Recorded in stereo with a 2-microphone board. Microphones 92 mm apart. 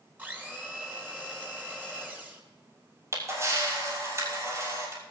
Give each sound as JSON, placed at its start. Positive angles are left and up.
{"t": 0.2, "sound": "a blender", "side_deg": -20, "distance_m": 3.0}
{"t": 3.1, "sound": "a camera shutter", "side_deg": -35, "distance_m": 5.5}